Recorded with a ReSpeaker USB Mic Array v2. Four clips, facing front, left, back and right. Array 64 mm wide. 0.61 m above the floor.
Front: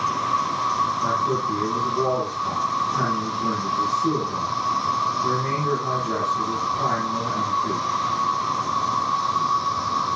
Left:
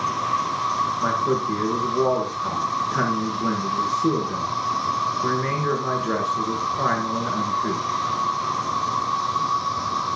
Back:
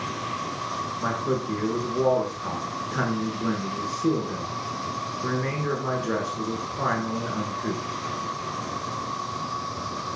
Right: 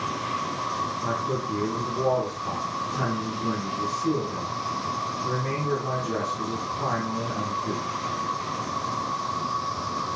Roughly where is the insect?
Ahead left.